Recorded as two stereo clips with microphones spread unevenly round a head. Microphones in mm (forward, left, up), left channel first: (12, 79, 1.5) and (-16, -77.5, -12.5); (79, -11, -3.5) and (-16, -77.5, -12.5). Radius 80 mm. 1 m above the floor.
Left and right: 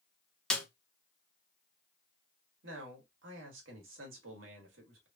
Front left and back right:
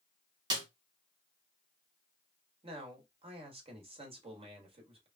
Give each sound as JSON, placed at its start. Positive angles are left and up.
{"t": 0.5, "sound": "a snare drum", "azimuth_deg": 170, "distance_m": 0.7}
{"t": 2.6, "sound": "a man speaking", "azimuth_deg": -105, "distance_m": 1.5}